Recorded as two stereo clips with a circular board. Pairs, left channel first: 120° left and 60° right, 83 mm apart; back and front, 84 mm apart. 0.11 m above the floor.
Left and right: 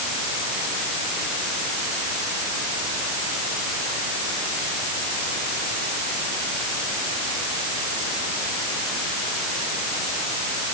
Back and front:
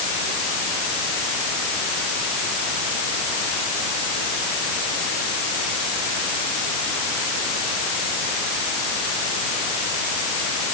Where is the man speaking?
No man speaking in this recording.